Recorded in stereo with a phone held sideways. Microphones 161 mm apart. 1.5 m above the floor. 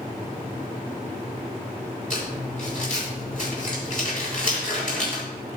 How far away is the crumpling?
About 6 m.